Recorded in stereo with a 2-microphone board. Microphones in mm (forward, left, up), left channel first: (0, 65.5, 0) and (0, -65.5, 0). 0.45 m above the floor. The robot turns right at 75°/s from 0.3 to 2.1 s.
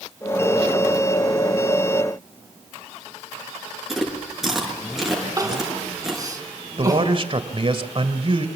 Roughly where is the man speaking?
Right.